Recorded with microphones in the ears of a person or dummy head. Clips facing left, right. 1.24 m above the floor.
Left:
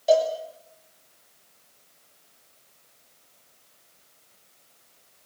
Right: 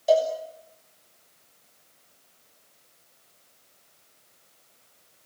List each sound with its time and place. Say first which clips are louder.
0.1 s a cowbell: left 1 dB; 5° left (ahead or behind), 6.5 m